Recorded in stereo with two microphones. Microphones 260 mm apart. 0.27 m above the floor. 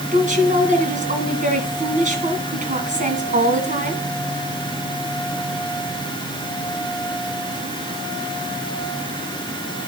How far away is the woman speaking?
About 3 m.